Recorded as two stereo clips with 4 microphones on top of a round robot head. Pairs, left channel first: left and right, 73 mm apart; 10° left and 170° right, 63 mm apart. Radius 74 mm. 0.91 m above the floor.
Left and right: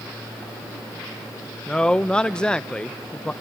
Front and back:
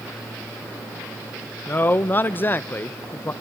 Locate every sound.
1.7 s a man speaking: 20° left, 0.5 m